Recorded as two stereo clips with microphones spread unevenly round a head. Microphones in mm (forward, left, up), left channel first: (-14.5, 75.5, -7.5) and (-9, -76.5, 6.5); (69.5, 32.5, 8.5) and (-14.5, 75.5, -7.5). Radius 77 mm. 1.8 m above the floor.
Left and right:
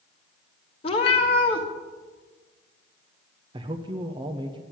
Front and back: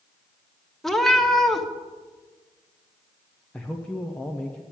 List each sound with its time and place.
0.8 s a cat meowing: 45° left, 1.3 m
3.5 s a man speaking: 85° right, 0.7 m